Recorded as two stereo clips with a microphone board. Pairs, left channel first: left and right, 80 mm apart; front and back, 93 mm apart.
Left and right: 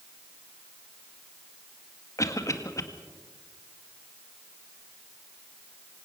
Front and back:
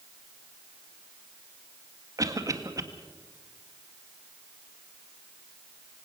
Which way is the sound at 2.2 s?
135° left.